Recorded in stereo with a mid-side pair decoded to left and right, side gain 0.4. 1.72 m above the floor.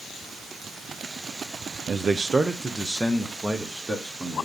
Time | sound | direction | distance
1.9 | a man speaking | 60° right | 0.6 m